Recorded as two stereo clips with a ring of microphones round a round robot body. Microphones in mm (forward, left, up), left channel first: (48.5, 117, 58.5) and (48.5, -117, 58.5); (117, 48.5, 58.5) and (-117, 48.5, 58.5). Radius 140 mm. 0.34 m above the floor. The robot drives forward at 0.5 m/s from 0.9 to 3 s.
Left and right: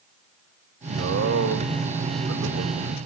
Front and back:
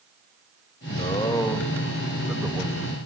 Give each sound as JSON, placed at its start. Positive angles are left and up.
{"t": 0.9, "sound": "a man speaking", "azimuth_deg": -65, "distance_m": 1.6}